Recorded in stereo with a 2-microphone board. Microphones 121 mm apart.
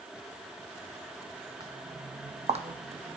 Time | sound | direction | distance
1.6 | footsteps | 35° right (ahead or behind) | 0.9 m